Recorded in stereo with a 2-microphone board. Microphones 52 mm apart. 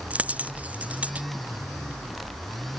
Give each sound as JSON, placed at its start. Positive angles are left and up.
{"t": 0.1, "sound": "a dropped coin", "side_deg": -30}